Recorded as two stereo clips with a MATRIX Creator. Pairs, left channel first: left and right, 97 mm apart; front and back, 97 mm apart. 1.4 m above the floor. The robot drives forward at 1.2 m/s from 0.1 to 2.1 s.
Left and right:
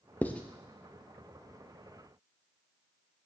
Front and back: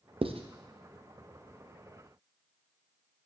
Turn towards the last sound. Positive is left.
turn(degrees=175)